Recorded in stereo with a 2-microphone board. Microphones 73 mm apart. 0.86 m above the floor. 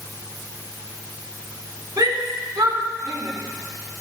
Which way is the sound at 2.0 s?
65° right (ahead or behind).